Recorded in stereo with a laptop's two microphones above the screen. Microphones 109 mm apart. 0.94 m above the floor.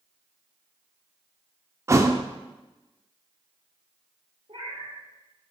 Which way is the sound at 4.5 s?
70° right (ahead or behind).